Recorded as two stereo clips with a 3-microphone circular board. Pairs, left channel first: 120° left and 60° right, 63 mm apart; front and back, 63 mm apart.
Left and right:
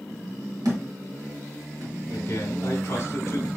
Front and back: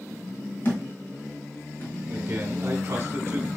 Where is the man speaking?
145° left, 1.3 m.